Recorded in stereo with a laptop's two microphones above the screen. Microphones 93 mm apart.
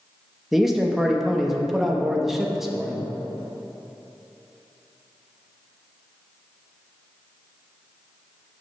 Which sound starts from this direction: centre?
A man speaking, at 0.5 s.